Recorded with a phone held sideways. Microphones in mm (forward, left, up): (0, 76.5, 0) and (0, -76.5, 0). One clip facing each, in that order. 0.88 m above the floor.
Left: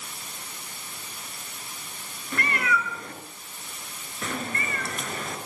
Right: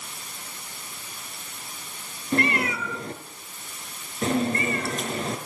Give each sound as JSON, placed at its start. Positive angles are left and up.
{"t": 2.3, "sound": "a cat meowing", "side_deg": -35, "distance_m": 4.5}